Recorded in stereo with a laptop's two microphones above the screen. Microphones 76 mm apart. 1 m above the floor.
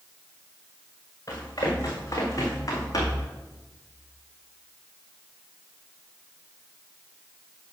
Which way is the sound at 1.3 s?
45° left (ahead or behind).